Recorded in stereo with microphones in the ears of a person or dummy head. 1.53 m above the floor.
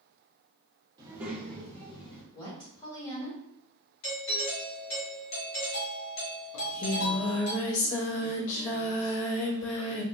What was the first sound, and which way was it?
A child speaking, 20° right (ahead or behind).